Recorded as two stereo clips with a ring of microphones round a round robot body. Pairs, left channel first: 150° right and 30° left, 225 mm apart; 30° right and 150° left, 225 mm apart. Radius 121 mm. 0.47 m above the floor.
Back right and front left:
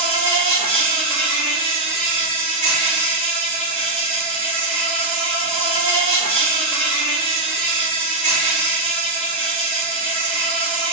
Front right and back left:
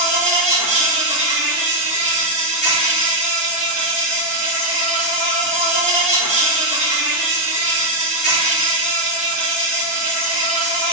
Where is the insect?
15° left, 1.6 m.